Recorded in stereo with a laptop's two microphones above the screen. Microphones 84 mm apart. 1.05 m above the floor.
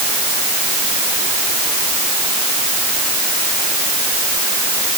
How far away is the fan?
No fan in this recording.